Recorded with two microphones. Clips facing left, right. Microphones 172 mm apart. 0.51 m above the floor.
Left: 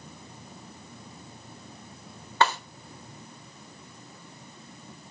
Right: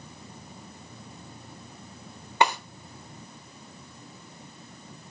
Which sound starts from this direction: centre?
A snare drum, at 2.4 s.